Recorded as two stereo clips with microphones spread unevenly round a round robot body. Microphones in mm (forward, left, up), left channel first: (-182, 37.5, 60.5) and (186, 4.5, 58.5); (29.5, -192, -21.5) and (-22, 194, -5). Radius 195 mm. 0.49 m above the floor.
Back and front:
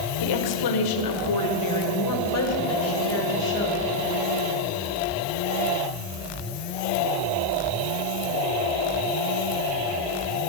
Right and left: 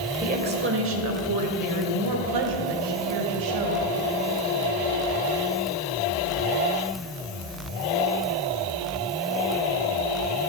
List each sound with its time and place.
0.2 s a woman speaking: 170° left, 1.9 m; by 3.9 s 115° left, 3 m